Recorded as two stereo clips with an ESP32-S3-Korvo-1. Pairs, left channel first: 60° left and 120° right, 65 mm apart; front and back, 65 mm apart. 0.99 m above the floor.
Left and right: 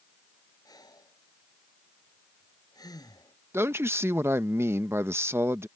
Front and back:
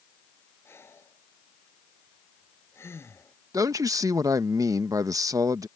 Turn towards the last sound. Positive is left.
turn(degrees=-165)